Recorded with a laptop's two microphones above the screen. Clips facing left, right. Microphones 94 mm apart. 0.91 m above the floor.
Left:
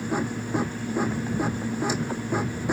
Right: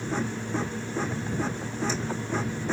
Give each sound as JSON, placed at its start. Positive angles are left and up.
{"t": 0.0, "sound": "a machine running", "side_deg": 15}